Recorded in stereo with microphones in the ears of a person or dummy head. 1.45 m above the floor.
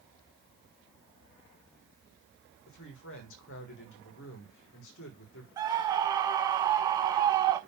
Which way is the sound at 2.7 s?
65° left (ahead or behind).